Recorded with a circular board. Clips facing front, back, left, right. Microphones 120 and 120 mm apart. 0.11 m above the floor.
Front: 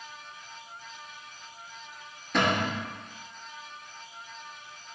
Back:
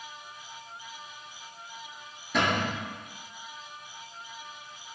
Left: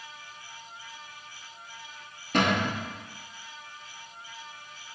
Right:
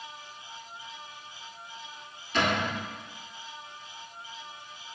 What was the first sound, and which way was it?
A cupboard door, 95° left.